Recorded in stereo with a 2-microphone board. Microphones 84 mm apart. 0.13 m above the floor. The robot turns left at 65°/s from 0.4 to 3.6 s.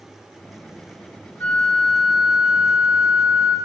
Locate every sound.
1.4 s a flute: 25° left (ahead or behind), 1.2 m; by 3.6 s 30° right (ahead or behind), 1.2 m